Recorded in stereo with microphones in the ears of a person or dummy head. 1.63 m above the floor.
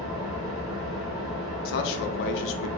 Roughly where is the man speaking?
Left.